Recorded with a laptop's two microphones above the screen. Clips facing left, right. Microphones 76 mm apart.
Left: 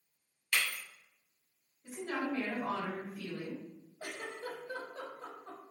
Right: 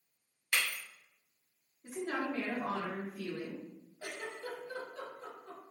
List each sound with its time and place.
0.5 s breaking glass: 25° right (ahead or behind), 1.5 m
1.8 s a woman speaking: 35° right (ahead or behind), 1.0 m
4.0 s a giggle: 45° left (ahead or behind), 1.1 m